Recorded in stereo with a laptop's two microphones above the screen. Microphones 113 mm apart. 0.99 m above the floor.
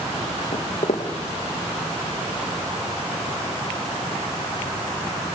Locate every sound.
0.5 s footsteps: 70° left (ahead or behind), 3.5 m